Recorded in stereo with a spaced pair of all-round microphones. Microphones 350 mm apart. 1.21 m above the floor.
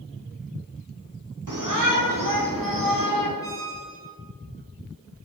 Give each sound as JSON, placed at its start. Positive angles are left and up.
{"t": 1.5, "sound": "a shout", "side_deg": -60, "distance_m": 4.5}
{"t": 3.4, "sound": "a squeak", "side_deg": 10, "distance_m": 4.5}